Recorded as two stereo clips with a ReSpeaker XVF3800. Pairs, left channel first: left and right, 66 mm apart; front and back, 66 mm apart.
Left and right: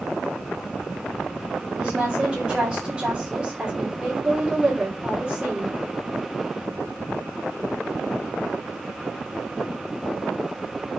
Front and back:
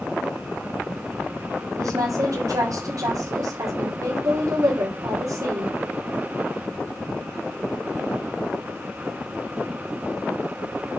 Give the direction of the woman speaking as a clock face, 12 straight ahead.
6 o'clock.